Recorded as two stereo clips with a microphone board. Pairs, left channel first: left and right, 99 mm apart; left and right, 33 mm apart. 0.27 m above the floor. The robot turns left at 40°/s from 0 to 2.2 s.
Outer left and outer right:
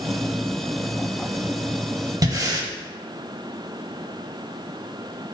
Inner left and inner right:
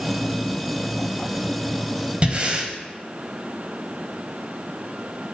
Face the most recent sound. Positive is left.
turn(degrees=-35)  # may be behind; listen again after turning